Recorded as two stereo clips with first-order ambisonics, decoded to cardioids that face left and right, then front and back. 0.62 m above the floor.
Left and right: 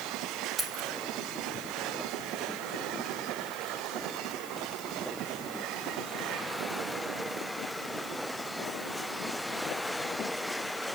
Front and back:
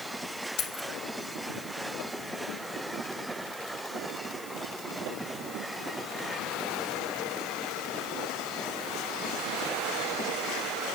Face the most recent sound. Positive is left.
turn(degrees=-20)